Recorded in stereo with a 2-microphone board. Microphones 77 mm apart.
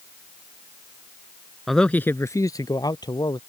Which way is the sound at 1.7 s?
Centre (ahead or behind).